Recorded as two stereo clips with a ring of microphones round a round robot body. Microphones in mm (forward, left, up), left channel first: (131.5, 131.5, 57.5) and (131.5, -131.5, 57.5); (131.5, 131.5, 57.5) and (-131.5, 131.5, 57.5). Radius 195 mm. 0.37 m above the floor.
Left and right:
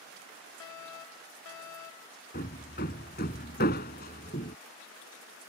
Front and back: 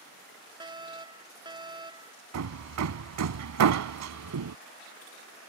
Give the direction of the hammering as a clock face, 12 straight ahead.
7 o'clock.